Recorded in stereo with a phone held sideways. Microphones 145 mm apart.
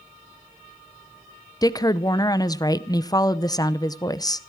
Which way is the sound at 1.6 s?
25° left (ahead or behind).